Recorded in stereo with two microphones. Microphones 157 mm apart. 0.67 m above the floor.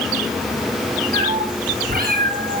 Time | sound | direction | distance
1.1 | a cat meowing | 80° right | 6.5 m